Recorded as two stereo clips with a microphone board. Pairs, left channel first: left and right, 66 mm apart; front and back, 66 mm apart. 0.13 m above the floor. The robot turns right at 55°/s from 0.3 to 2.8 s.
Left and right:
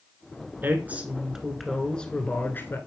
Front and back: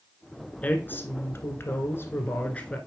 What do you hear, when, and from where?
0.6 s a woman speaking: 55° right, 1.4 m; by 2.8 s 65° left, 1.4 m